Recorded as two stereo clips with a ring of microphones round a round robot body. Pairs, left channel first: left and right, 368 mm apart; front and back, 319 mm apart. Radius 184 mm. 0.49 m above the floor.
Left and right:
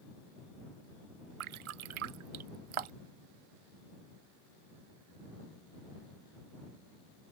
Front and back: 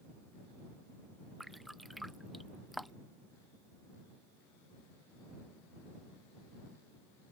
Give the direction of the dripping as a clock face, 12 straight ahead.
3 o'clock.